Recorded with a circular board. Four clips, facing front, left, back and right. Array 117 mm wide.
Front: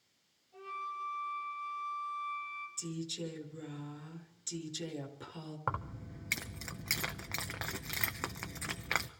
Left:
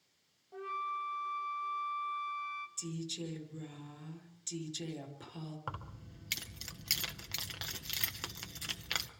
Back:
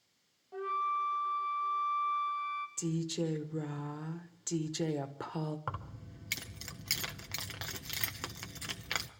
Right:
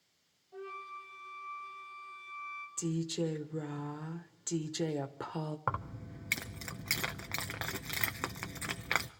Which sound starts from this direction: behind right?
A woman speaking, at 2.8 s.